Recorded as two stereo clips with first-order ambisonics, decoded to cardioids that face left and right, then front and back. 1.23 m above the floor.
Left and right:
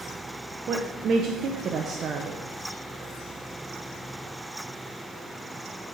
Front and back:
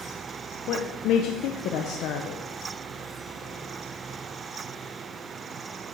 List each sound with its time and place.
0.7 s a woman speaking: 35° right, 0.7 m